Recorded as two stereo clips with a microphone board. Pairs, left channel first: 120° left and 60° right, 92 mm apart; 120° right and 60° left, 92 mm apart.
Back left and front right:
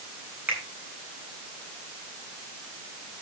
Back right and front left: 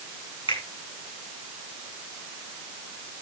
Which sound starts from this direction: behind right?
A finger snap, at 0.5 s.